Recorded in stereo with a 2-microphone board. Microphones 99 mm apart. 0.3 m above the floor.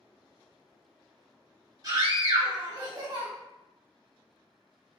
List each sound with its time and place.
1.8 s a scream: 40° right (ahead or behind), 1.9 m